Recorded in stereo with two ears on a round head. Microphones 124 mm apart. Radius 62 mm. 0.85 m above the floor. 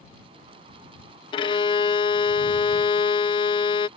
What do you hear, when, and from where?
1.3 s a violin: 35° left (ahead or behind)